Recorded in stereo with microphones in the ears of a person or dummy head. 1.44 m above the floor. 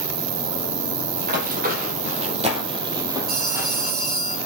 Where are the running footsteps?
50° right (ahead or behind), 2.5 m; by 3.9 s 5° right (ahead or behind), 2.5 m.